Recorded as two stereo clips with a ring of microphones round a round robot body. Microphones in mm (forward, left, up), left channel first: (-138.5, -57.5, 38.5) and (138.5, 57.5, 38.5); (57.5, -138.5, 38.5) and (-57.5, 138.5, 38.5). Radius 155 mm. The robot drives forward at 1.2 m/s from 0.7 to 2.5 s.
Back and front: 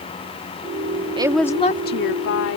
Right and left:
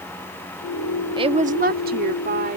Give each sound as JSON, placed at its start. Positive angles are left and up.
{"t": 1.2, "sound": "a woman speaking", "azimuth_deg": 65}